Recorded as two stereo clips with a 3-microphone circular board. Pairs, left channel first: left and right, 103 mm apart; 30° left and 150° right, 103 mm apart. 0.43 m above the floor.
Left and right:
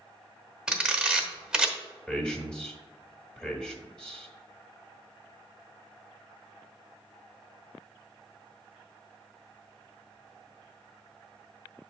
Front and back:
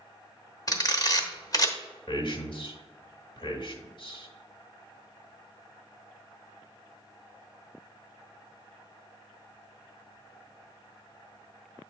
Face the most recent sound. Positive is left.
turn(degrees=15)